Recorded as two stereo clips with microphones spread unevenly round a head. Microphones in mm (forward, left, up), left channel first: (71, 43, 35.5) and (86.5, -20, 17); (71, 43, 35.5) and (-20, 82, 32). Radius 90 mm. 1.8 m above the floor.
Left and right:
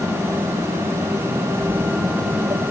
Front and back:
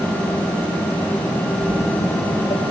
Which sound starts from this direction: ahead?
Footsteps, at 1.6 s.